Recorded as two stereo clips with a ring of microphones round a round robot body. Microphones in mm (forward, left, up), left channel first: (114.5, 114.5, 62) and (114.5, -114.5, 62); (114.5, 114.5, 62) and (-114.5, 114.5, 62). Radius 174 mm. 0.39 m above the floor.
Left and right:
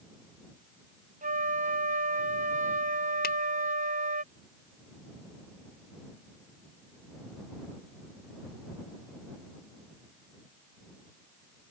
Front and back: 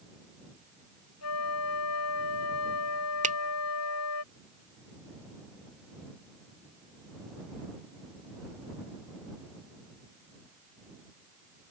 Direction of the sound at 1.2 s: 35° right.